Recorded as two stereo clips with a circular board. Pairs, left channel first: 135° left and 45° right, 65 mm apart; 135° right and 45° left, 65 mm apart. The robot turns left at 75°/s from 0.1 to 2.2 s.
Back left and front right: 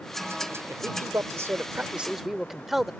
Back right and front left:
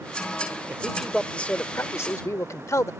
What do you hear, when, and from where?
0.7 s a man speaking: 15° right; by 2.9 s 130° right